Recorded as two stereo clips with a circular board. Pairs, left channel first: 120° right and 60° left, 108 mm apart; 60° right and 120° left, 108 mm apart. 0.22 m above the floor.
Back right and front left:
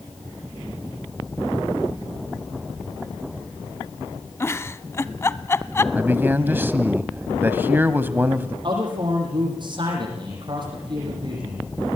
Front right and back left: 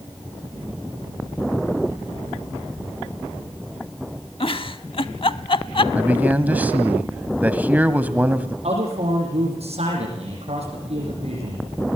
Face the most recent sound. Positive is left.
turn(degrees=105)